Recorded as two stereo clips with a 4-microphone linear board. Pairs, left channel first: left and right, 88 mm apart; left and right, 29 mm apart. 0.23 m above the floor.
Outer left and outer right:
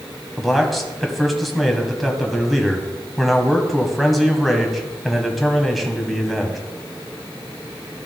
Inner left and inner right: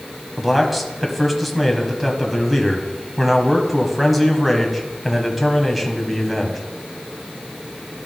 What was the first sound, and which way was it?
A man speaking, centre (ahead or behind).